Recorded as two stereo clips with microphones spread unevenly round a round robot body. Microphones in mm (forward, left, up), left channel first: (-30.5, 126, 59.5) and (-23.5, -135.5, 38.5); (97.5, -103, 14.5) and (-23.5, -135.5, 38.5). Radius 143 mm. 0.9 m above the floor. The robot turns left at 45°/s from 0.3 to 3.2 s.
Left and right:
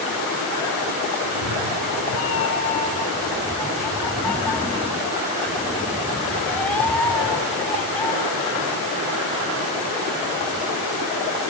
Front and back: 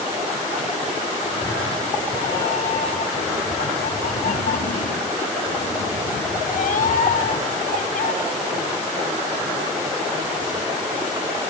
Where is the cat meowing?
95° left, 1.7 m; by 8.1 s 10° left, 1.7 m.